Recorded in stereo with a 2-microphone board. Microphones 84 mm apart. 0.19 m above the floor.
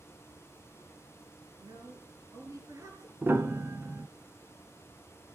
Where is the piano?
25° right (ahead or behind), 0.8 m.